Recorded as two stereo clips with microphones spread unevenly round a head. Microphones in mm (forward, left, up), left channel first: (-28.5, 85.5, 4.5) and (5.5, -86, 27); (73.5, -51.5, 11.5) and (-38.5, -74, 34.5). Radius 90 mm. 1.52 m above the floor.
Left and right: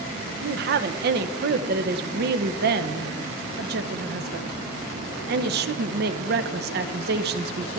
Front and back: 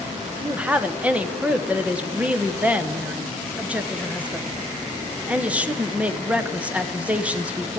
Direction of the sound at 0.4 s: 95° right.